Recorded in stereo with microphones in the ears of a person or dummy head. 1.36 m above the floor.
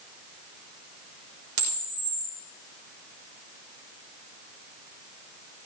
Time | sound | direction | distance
1.6 | a camera shutter | 65° right (ahead or behind) | 5.5 m